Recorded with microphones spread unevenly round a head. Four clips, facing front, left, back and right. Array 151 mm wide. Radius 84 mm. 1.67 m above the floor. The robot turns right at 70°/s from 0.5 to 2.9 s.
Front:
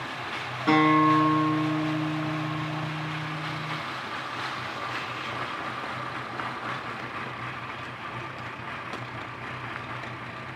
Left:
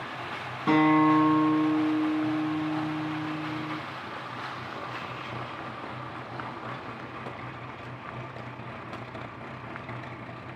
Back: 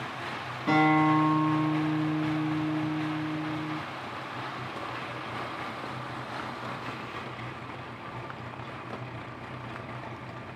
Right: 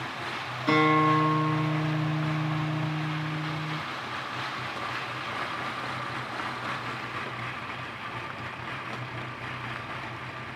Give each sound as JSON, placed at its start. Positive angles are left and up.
{"t": 0.7, "sound": "a guitar", "azimuth_deg": 75, "distance_m": 1.0}